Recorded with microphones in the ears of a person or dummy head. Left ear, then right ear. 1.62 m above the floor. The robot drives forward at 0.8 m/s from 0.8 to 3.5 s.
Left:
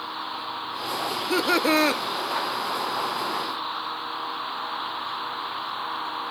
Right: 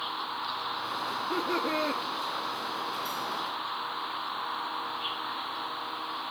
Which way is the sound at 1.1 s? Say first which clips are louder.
Left 8 dB; 60° left (ahead or behind).